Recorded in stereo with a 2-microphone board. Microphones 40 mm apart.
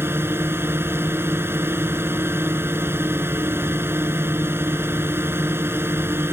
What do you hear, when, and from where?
0.0 s a drone: 70° right (ahead or behind)